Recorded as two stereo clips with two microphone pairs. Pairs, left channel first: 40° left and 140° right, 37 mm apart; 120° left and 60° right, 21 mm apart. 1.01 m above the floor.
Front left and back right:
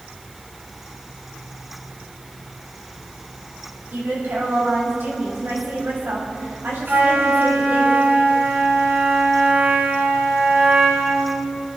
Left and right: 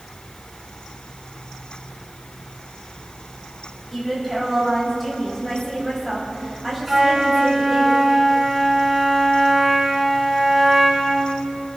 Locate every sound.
3.9 s a woman speaking: 150° right, 5 m
6.9 s a flute: 130° right, 3 m